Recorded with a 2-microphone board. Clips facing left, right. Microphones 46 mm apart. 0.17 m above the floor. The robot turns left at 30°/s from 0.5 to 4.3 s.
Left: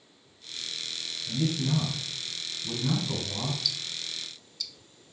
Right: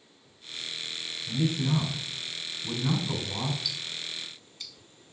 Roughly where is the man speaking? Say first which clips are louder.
Right 1 dB; ahead right.